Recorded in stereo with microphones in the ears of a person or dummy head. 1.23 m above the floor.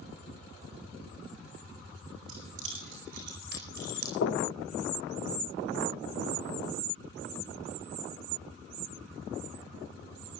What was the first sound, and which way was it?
Keys jangling, 50° right (ahead or behind).